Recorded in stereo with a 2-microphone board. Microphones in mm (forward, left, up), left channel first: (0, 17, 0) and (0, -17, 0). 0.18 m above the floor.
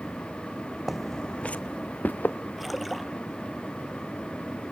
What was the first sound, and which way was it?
Footsteps, 5° right (ahead or behind).